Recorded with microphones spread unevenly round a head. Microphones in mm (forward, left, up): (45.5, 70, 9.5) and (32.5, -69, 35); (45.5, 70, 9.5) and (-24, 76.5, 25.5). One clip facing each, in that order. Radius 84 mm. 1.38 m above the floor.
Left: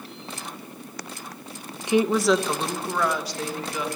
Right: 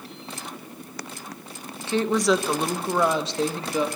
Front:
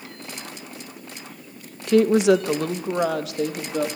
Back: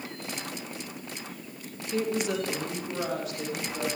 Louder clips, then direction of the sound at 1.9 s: Left 2 dB, front 13 dB; 10° left.